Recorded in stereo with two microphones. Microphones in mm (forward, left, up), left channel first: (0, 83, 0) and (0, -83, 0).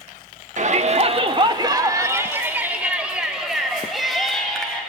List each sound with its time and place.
0.6 s a shout: 50° right (ahead or behind), 1.0 m; by 4.8 s 5° left (ahead or behind), 3 m